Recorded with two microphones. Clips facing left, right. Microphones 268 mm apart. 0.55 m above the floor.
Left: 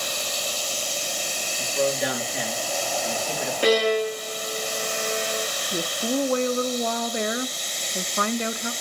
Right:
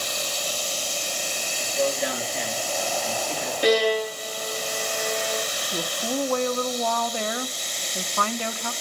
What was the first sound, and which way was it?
A man speaking, 80° left.